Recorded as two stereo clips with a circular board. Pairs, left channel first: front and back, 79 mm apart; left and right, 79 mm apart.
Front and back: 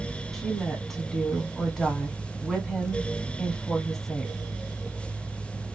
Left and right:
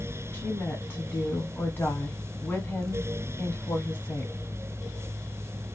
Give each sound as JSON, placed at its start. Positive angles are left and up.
{"t": 0.3, "sound": "a woman speaking", "azimuth_deg": 85, "distance_m": 1.1}